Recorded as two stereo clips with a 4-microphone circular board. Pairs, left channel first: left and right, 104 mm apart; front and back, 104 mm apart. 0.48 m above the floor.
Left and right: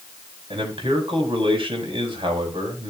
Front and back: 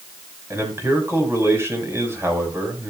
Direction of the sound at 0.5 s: 115° right.